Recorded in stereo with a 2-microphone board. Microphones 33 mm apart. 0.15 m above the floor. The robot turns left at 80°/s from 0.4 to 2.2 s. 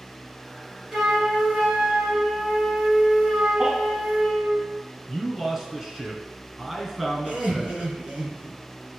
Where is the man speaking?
10° right (ahead or behind), 2 m.